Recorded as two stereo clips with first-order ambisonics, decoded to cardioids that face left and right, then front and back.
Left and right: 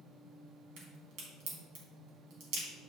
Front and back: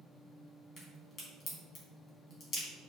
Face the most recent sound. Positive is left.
turn(degrees=-55)